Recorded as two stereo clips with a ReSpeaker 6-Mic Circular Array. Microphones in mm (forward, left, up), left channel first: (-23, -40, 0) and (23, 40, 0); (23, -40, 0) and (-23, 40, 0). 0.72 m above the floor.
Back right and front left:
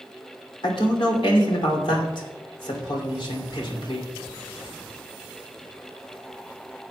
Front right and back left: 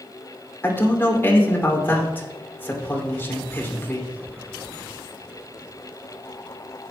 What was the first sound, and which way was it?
A man speaking, 125° right.